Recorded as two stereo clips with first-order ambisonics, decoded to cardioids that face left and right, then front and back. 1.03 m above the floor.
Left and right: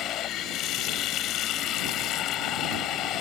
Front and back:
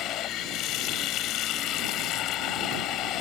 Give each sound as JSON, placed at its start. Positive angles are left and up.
{"t": 0.0, "sound": "running water", "azimuth_deg": 45}